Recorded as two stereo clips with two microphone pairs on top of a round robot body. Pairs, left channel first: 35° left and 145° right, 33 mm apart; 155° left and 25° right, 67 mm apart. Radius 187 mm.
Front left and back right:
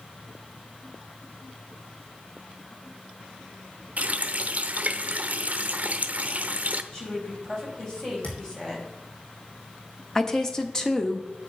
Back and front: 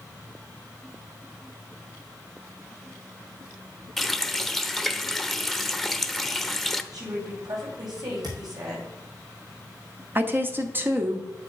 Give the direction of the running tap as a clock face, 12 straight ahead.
4 o'clock.